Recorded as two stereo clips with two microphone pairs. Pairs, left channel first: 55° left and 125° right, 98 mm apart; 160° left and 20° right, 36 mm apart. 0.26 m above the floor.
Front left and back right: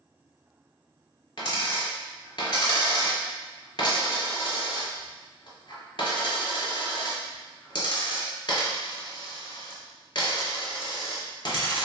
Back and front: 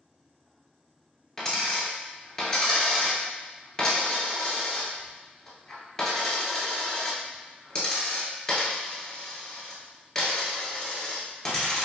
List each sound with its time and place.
1.4 s a dropped coin: 90° left, 0.8 m